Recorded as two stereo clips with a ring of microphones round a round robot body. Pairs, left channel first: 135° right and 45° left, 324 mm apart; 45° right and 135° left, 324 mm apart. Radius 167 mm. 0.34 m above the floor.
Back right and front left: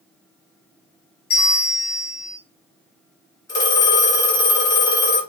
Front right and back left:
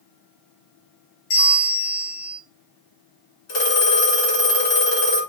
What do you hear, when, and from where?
1.3 s a bell: 70° right, 1.9 m
3.5 s a phone ringing: 55° right, 2.5 m